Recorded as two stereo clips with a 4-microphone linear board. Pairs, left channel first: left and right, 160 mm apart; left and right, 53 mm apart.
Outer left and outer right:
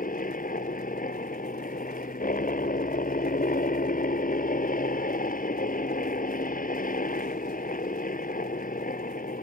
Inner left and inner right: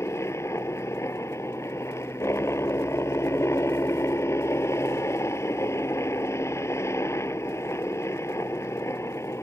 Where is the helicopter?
60° left (ahead or behind).